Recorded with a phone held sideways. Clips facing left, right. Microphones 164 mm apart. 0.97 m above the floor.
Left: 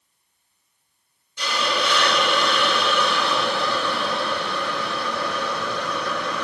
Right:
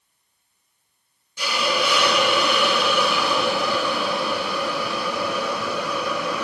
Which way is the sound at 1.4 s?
10° right (ahead or behind).